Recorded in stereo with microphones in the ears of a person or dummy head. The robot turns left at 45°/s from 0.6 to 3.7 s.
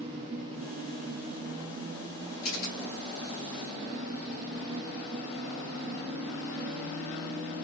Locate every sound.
2.4 s a camera shutter: 85° left, 3 m; by 2.8 s 75° left (ahead or behind), 3 m